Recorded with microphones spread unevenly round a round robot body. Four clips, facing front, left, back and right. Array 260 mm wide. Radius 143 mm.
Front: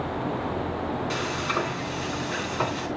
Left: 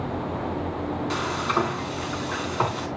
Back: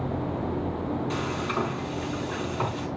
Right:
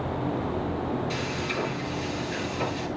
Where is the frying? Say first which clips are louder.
Left 5 dB, front 1 dB; 70° left, 3.5 m.